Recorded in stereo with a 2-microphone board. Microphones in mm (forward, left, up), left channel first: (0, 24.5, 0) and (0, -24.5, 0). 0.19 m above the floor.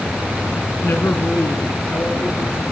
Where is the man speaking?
50° left (ahead or behind), 1.9 m; by 2.6 s 65° left (ahead or behind), 4 m.